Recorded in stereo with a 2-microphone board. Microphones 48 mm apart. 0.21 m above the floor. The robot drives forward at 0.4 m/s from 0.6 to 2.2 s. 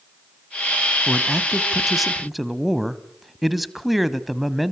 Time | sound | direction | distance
1.1 | a man speaking | centre (ahead or behind) | 1.2 m